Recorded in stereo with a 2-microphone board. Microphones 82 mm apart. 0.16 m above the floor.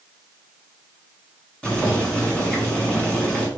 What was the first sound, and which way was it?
Boiling, 10° left (ahead or behind).